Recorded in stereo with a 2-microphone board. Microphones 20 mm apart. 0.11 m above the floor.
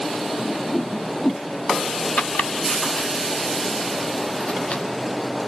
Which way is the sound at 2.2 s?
65° left (ahead or behind).